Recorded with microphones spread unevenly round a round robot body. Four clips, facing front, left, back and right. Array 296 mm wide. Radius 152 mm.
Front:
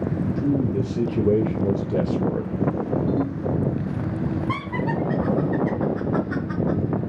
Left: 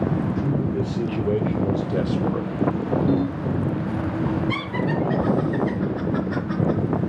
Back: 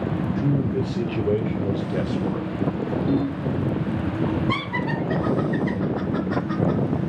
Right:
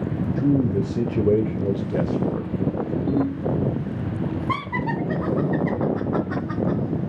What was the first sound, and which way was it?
A man speaking, 95° right.